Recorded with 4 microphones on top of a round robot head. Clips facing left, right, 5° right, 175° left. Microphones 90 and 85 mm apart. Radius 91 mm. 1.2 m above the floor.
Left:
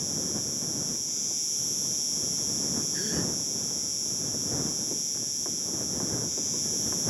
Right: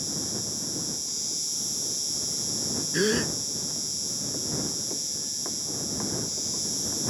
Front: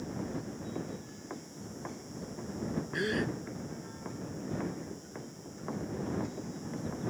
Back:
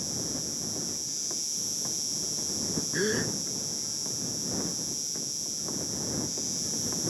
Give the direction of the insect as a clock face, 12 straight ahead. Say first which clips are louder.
Even, even; 6 o'clock.